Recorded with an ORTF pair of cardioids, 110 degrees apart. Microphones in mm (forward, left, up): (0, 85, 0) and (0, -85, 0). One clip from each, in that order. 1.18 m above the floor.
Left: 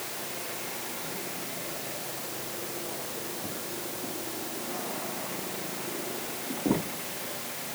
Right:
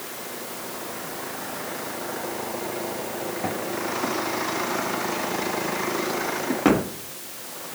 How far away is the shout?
I don't hear a shout.